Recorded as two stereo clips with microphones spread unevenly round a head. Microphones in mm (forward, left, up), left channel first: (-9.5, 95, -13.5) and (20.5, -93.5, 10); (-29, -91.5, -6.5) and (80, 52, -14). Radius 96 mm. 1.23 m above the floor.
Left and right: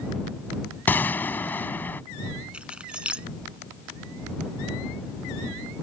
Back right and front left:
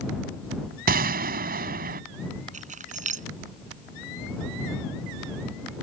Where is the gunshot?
15° left.